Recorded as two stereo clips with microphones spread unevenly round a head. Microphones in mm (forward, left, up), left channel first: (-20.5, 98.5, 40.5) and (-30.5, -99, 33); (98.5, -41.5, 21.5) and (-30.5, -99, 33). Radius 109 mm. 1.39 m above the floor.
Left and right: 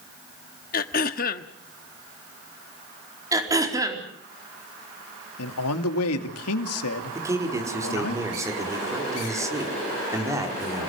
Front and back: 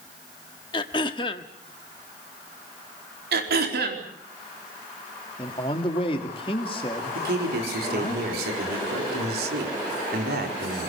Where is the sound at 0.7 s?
80° left, 1.0 m.